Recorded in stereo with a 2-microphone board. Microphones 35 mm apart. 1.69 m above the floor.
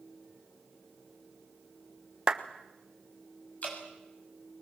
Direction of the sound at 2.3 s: 25° right (ahead or behind).